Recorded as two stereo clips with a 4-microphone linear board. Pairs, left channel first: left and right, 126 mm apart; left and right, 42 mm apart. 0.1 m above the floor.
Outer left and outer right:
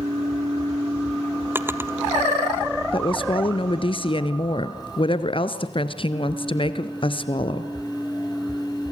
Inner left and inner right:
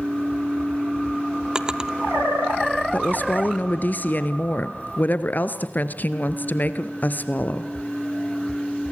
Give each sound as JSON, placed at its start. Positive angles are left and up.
{"t": 1.6, "sound": "a drawer", "side_deg": -20, "distance_m": 1.0}
{"t": 2.9, "sound": "a woman speaking", "side_deg": 45, "distance_m": 1.7}